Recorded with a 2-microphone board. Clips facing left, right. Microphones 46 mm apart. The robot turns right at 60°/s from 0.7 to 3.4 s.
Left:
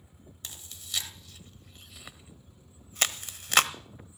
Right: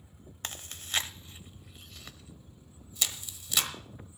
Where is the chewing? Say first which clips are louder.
Right 6 dB; 50° right (ahead or behind), 1.0 m; by 3.7 s 55° left (ahead or behind), 1.0 m.